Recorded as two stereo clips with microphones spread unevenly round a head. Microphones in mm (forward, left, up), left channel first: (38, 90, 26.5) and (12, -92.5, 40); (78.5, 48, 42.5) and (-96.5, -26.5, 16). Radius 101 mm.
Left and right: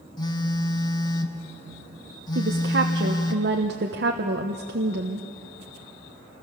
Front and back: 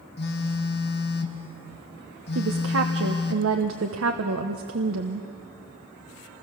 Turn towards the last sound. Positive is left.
turn(degrees=-135)